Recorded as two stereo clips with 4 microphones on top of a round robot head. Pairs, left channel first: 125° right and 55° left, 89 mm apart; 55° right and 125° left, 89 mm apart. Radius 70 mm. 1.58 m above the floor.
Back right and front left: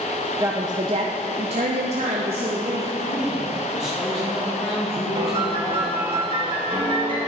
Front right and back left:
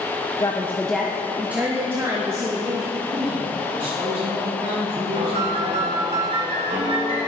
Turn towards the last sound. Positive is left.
turn(degrees=90)